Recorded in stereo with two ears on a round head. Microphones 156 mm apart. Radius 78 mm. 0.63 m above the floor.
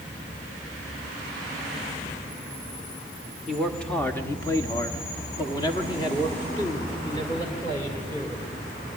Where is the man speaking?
Centre (ahead or behind), 1.2 m; by 8.5 s 25° left (ahead or behind), 3 m.